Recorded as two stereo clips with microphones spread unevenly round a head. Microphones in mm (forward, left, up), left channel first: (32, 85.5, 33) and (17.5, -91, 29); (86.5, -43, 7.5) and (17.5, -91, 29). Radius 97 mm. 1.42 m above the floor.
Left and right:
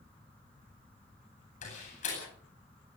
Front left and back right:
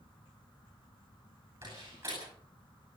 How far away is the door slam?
About 9 m.